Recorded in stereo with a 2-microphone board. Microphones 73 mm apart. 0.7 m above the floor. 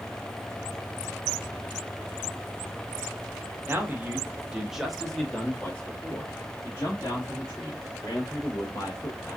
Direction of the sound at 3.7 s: 30° right (ahead or behind).